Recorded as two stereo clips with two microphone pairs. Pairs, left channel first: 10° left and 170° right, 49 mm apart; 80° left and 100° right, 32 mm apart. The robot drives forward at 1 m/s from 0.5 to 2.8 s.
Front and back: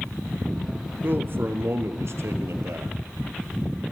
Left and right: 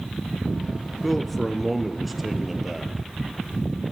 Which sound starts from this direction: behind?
A man speaking, at 1.0 s.